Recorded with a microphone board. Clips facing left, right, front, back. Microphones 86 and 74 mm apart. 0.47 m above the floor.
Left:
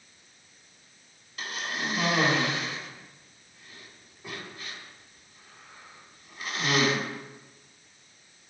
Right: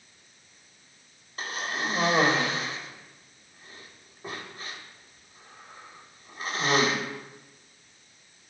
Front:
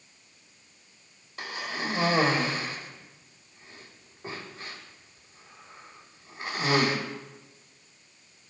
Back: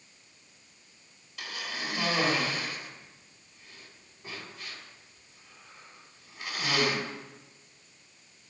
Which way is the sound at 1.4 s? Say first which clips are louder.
Right 2 dB, front 4 dB; 50° right.